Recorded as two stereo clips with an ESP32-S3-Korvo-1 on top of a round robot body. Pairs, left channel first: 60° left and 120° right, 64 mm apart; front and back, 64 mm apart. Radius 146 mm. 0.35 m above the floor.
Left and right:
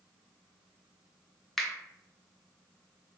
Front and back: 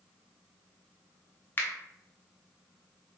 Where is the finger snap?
20° right, 1.0 m.